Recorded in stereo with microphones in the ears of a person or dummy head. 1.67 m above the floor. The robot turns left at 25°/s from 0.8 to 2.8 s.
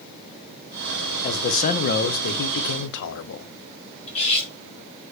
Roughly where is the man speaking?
Behind left.